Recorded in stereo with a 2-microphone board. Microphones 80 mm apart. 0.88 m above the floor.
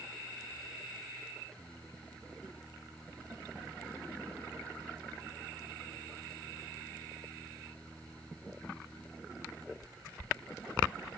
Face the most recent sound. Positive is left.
turn(degrees=0)  # may be behind; listen again after turning